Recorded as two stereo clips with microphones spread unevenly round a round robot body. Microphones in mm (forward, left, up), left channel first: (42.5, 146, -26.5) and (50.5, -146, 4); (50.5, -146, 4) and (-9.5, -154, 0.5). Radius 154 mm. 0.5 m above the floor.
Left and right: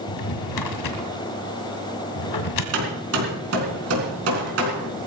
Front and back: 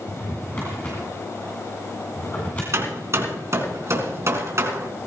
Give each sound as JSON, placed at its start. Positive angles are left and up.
{"t": 0.1, "sound": "a drawer", "azimuth_deg": 90, "distance_m": 1.8}
{"t": 2.7, "sound": "hammering", "azimuth_deg": -135, "distance_m": 4.0}